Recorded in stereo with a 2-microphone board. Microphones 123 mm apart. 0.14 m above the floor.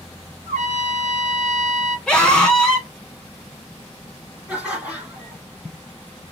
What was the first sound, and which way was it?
A trumpet, 80° right.